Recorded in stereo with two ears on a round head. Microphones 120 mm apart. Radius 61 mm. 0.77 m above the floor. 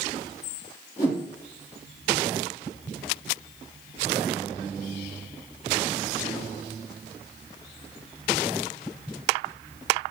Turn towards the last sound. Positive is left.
turn(degrees=50)  # may be behind; listen again after turning